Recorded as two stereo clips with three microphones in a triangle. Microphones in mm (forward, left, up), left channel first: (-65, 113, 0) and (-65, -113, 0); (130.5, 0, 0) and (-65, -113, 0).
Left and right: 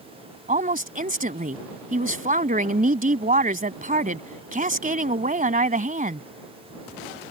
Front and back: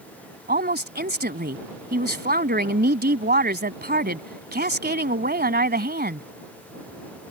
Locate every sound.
0.5 s a woman speaking: 130° right